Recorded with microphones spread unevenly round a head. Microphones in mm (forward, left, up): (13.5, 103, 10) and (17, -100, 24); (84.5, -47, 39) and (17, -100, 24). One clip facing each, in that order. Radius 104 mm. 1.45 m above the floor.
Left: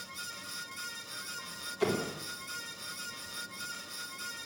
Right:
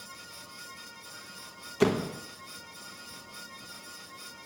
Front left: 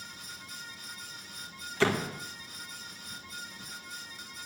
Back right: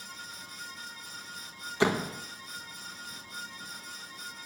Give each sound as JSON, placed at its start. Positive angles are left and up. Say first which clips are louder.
{"t": 1.8, "sound": "a door slam", "louder": "right 5 dB, back right 1 dB", "azimuth_deg": -70, "distance_m": 1.5}